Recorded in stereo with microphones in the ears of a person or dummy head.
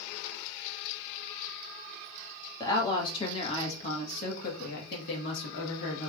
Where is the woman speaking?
25° left (ahead or behind), 1.8 m; by 6.1 s 80° left, 1.6 m.